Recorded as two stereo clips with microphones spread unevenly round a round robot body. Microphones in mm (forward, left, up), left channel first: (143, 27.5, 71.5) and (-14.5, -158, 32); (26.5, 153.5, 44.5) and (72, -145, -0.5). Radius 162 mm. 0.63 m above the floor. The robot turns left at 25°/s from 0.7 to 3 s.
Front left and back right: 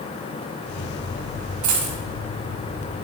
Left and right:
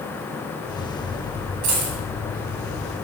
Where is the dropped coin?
125° right, 1.6 m; by 2.0 s 135° right, 1.6 m.